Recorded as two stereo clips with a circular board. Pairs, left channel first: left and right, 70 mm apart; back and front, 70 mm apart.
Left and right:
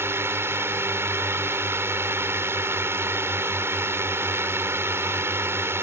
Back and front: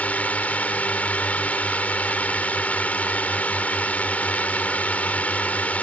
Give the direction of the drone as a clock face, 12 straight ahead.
4 o'clock.